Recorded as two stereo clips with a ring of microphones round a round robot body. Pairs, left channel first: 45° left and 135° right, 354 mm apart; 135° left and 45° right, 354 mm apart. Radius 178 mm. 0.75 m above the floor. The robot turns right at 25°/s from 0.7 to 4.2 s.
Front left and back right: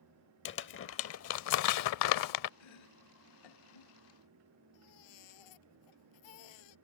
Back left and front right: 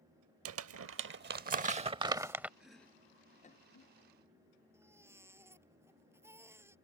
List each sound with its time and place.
0.5 s crumpling: 5° right; by 2.5 s 40° left
2.6 s chopping: 40° left; by 3.9 s 75° left
4.7 s a baby crying: 40° left